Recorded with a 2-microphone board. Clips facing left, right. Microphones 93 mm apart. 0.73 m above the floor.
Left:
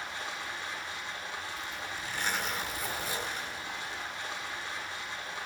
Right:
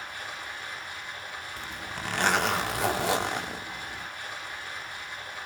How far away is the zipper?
About 1.4 m.